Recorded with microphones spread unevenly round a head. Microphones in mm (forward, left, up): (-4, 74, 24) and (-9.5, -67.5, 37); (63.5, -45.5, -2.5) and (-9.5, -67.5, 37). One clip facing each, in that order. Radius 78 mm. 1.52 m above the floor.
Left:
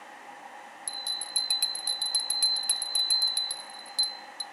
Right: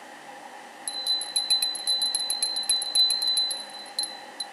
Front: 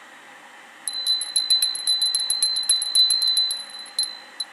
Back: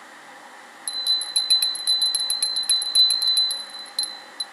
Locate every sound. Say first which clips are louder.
0.9 s a bell: right 3 dB, back 1 dB; 10° right, 0.6 m